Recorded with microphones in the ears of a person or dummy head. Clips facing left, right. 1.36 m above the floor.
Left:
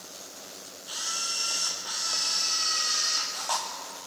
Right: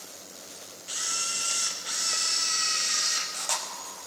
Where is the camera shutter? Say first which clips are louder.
Right 1 dB; 25° right (ahead or behind), 0.9 m.